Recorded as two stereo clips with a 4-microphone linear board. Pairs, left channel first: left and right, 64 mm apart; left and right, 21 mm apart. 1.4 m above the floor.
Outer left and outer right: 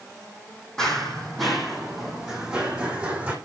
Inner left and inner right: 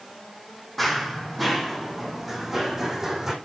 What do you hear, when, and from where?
0.8 s running footsteps: 5° left (ahead or behind), 4 m; by 3.3 s 20° right (ahead or behind), 5 m